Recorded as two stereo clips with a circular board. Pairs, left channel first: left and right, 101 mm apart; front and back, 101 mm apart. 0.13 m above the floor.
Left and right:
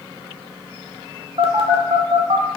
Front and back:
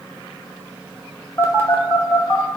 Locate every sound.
1.4 s a phone buzzing: 70° right, 0.6 m